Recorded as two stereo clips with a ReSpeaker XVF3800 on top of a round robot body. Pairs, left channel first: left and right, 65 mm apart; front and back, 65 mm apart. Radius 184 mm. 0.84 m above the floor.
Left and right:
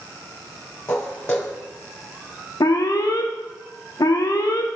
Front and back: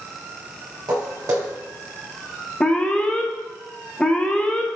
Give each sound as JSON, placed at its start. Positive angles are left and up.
{"t": 0.9, "sound": "footsteps", "azimuth_deg": 145, "distance_m": 2.0}
{"t": 2.6, "sound": "an alarm", "azimuth_deg": 75, "distance_m": 1.1}